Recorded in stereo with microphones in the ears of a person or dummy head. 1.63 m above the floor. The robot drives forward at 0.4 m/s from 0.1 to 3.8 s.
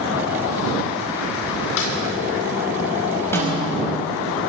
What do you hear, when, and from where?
1.8 s a snare drum: 70° left (ahead or behind), 2.5 m
3.3 s a snare drum: 15° left (ahead or behind), 4.5 m